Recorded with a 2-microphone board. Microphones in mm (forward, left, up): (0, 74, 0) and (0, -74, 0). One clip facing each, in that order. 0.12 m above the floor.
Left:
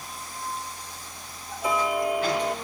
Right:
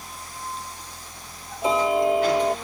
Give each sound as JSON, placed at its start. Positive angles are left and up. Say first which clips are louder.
{"t": 1.6, "sound": "ticking", "louder": "right 5 dB", "side_deg": -25}